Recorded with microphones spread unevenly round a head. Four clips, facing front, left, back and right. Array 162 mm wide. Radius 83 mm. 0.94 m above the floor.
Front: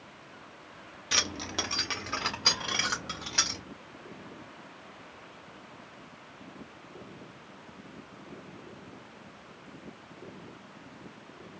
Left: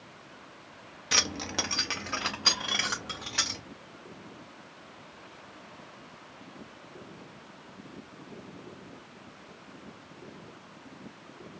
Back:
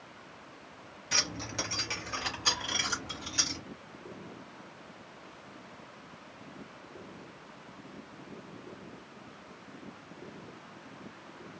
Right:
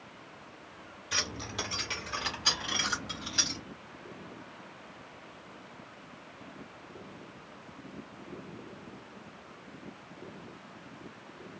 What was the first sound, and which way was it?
Keys jangling, 75° left.